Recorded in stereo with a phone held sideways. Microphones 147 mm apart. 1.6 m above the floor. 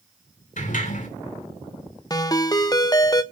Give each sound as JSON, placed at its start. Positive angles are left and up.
{"t": 0.6, "sound": "a sliding door", "side_deg": 65, "distance_m": 2.5}
{"t": 2.1, "sound": "a ringtone", "side_deg": 25, "distance_m": 0.8}